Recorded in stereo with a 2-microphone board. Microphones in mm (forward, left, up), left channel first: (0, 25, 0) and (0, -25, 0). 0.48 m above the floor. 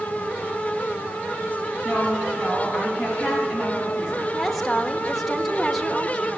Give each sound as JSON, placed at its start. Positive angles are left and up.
{"t": 1.9, "sound": "a woman speaking", "side_deg": 0, "distance_m": 4.0}
{"t": 4.3, "sound": "a woman speaking", "side_deg": 5, "distance_m": 1.0}